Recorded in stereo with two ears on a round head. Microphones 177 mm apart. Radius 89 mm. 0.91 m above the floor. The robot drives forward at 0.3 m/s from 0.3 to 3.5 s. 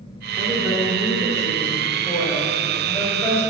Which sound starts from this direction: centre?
A woman speaking, at 0.4 s.